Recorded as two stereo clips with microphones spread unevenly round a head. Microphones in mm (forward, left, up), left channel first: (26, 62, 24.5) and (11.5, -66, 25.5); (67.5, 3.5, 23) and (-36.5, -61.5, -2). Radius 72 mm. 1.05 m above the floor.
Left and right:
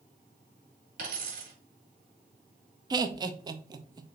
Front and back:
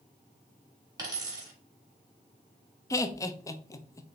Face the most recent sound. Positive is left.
turn(degrees=-35)